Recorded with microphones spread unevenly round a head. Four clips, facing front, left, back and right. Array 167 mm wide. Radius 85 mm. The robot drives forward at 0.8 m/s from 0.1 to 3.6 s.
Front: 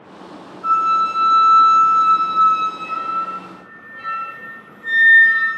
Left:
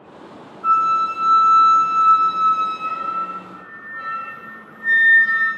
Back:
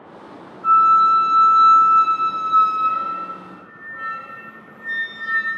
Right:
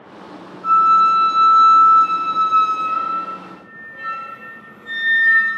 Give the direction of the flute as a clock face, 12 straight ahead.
11 o'clock.